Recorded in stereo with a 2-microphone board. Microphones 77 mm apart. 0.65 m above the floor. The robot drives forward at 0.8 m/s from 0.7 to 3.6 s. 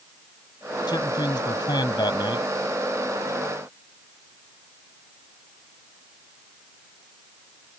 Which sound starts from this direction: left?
A man speaking, at 0.9 s.